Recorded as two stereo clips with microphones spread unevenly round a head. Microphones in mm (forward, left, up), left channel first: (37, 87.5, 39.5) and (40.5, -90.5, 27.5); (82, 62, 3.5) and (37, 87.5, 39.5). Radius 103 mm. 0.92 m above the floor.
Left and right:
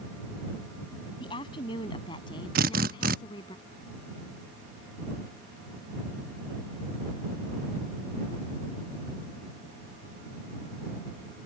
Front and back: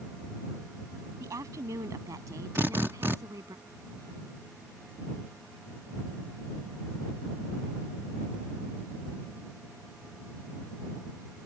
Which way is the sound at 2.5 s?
140° right.